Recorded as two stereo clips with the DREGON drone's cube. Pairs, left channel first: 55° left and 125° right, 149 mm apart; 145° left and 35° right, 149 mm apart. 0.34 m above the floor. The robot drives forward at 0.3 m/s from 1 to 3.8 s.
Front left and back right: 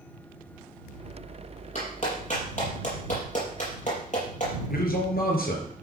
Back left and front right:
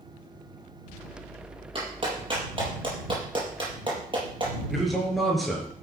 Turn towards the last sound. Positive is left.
turn(degrees=55)